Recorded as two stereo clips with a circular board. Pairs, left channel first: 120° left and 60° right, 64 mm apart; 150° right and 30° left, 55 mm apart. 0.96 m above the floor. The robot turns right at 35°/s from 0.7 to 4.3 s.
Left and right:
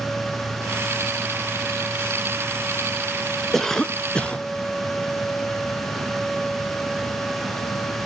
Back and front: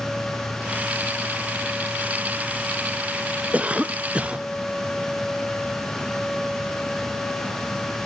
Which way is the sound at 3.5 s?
40° left.